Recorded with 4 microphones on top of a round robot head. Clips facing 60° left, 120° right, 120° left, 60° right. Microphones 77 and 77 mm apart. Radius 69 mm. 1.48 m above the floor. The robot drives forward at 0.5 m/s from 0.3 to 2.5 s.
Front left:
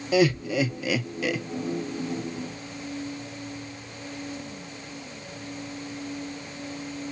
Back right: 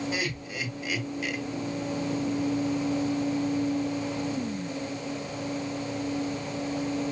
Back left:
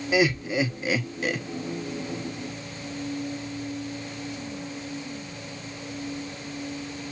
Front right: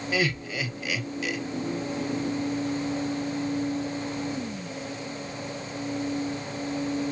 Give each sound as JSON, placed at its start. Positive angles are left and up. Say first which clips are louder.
{"t": 0.1, "sound": "laughter", "louder": "front left 11 dB, back left 6 dB", "azimuth_deg": 50, "distance_m": 1.3}